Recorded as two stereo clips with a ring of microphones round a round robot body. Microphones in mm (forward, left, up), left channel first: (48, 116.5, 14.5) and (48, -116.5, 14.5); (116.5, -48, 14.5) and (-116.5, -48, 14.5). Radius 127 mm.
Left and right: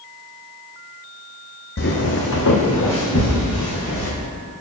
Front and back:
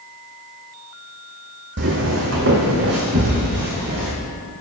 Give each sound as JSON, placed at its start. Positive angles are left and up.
{"t": 1.8, "sound": "footsteps", "azimuth_deg": 140, "distance_m": 0.9}